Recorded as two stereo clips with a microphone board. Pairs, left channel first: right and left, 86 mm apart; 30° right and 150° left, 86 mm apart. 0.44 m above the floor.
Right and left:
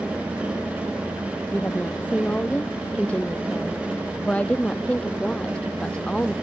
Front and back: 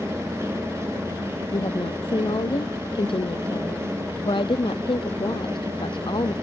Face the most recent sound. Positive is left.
turn(degrees=-10)